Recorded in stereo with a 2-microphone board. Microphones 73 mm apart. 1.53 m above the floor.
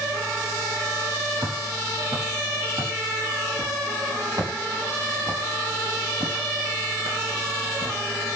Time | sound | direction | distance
1.4 | footsteps | 75° right (ahead or behind) | 6.5 m